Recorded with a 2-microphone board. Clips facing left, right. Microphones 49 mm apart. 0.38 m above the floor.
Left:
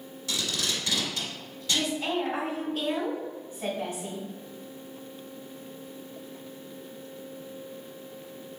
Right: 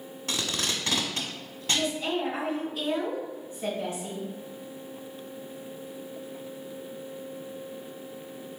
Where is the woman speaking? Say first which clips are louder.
Even; 60° left (ahead or behind), 1.8 m.